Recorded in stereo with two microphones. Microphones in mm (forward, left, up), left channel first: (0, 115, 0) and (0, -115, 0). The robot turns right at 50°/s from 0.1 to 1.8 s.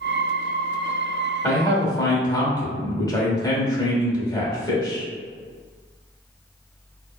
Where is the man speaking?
15° left (ahead or behind), 0.8 m.